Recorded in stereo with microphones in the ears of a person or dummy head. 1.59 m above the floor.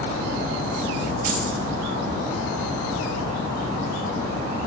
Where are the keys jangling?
50° right (ahead or behind), 1.3 m.